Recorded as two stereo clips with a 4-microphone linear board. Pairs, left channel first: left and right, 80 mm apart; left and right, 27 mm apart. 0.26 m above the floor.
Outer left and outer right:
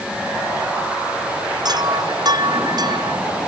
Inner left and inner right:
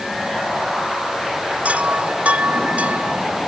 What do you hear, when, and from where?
1.6 s a chime: 55° right (ahead or behind)